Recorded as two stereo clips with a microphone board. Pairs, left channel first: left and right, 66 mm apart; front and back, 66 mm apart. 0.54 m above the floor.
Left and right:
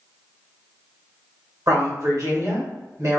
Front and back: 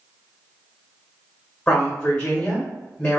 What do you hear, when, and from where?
1.7 s a woman speaking: 75° right, 1.9 m